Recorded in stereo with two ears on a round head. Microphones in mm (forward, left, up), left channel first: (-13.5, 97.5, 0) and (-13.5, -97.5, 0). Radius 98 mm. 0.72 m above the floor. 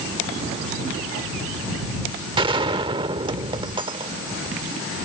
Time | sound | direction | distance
2.4 | a gunshot | 20° right (ahead or behind) | ?